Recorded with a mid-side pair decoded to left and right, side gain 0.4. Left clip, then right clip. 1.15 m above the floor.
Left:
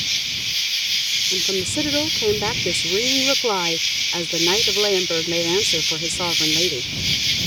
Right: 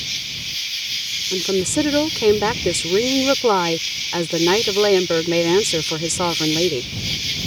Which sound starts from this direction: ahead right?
A woman speaking, at 1.3 s.